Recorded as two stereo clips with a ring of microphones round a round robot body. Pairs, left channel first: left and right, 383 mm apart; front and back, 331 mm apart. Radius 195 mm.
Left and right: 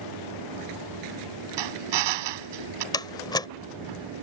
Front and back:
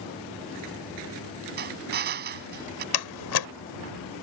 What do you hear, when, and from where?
1.6 s a drill: 115° right
2.9 s a door slam: 10° left